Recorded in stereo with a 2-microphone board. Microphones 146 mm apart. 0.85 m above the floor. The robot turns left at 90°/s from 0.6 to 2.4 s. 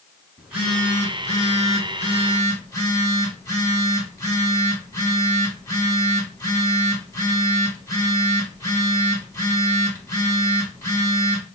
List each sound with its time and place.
0.4 s a phone buzzing: 170° right, 1.3 m; by 11.5 s 30° left, 1.3 m